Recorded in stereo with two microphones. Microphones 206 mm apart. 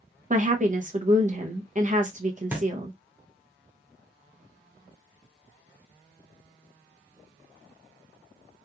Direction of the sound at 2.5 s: 10° right (ahead or behind).